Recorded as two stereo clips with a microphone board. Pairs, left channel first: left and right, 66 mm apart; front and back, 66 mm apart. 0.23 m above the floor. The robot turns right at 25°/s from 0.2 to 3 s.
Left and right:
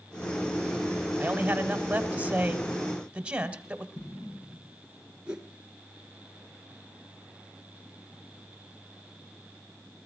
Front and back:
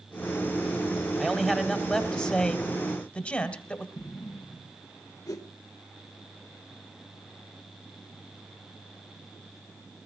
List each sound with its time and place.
1.2 s a man speaking: 85° right, 1.5 m; by 3.9 s 40° right, 1.5 m
4.0 s an explosion: 45° left, 7 m
5.3 s a whoosh: 15° right, 1.6 m